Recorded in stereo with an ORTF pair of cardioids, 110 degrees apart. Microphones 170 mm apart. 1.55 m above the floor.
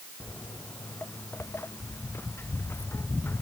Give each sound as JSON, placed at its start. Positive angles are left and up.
{"t": 0.2, "sound": "footsteps", "azimuth_deg": 10}